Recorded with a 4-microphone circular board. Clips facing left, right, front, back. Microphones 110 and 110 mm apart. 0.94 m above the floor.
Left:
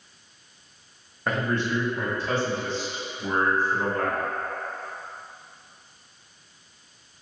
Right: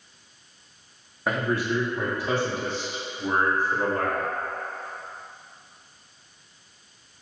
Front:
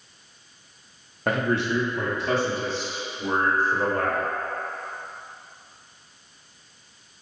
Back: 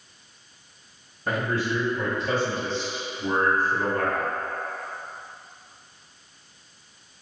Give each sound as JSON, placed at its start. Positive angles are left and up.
{"t": 1.3, "sound": "a man speaking", "azimuth_deg": -5, "distance_m": 0.8}